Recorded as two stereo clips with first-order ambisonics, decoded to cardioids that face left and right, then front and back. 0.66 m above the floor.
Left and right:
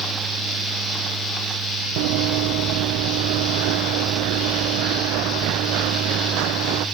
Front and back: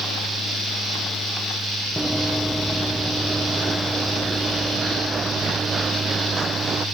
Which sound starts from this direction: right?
Running footsteps, at 2.0 s.